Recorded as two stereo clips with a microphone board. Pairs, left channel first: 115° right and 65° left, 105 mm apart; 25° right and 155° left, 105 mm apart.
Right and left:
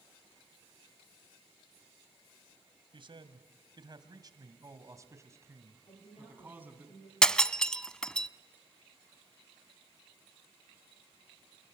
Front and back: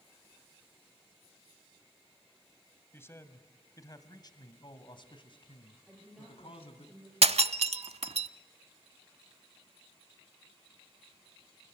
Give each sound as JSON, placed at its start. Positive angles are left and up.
{"t": 2.9, "sound": "a man speaking", "azimuth_deg": 40, "distance_m": 2.0}
{"t": 5.9, "sound": "a woman speaking", "azimuth_deg": -120, "distance_m": 10.0}
{"t": 7.2, "sound": "breaking glass", "azimuth_deg": 165, "distance_m": 0.6}